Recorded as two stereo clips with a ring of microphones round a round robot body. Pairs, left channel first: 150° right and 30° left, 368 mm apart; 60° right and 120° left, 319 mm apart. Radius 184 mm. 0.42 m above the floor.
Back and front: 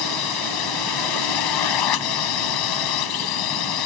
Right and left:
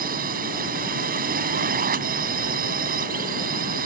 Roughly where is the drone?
Behind.